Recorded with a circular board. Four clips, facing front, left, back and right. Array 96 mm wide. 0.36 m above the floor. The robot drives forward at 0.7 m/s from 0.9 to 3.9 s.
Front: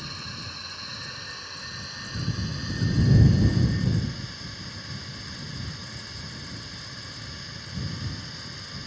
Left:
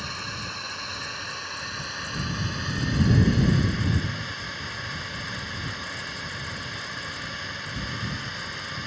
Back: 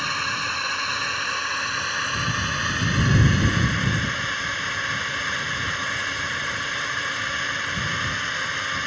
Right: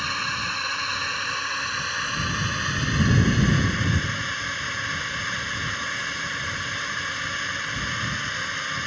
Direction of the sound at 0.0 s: 150° right.